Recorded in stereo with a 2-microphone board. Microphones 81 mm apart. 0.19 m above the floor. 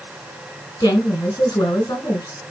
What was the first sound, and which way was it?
A woman speaking, 55° left (ahead or behind).